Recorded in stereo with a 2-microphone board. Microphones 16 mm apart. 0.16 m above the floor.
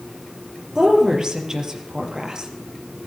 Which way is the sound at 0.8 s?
40° right (ahead or behind).